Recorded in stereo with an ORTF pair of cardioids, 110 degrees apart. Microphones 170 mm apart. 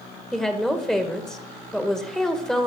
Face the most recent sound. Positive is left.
turn(degrees=5)